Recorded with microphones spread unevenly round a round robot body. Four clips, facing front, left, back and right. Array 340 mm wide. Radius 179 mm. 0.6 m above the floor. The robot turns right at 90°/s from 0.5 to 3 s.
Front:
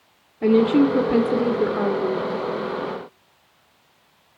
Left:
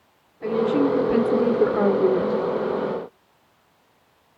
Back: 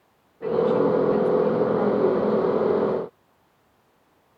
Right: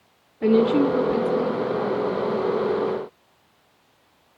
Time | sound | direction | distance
0.4 | a woman speaking | 45° right | 2.0 m